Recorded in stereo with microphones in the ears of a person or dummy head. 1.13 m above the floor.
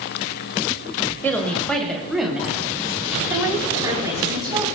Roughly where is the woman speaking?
Centre.